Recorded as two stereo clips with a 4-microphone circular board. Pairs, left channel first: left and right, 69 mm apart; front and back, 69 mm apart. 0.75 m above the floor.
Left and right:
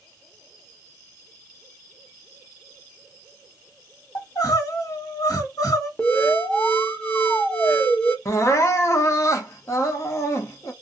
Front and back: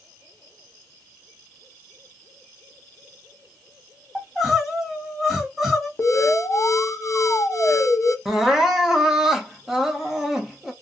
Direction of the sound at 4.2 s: 95° left.